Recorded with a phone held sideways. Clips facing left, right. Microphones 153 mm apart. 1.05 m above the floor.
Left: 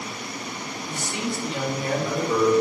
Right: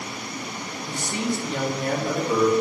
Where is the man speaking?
35° right (ahead or behind), 0.9 m; by 2.5 s 55° right (ahead or behind), 1.7 m.